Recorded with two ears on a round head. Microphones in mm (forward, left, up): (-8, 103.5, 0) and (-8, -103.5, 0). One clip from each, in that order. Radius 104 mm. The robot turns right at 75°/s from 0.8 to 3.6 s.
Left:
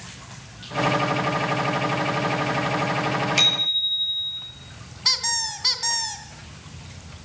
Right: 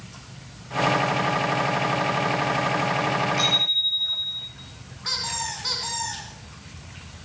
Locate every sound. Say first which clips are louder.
3.4 s a bicycle bell: left 2 dB; 65° left (ahead or behind), 7.5 m; by 4.5 s 80° left, 7.5 m
5.0 s a squeak: left 5 dB; 55° left (ahead or behind), 2.5 m